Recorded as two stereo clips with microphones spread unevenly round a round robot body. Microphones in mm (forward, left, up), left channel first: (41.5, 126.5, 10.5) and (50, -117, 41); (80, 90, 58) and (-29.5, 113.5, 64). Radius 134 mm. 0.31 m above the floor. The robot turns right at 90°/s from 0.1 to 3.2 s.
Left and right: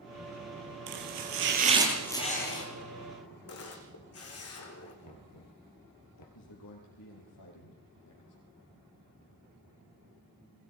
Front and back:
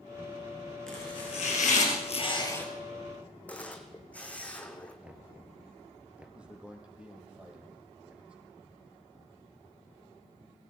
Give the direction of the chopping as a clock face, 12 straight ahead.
3 o'clock.